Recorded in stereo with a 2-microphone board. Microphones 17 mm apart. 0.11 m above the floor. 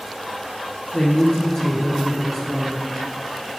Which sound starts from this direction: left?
A man speaking, at 0.9 s.